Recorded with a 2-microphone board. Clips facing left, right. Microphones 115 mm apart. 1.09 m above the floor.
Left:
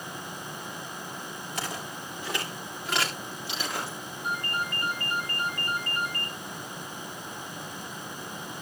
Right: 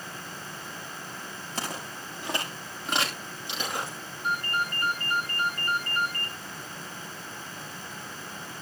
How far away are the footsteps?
About 8 m.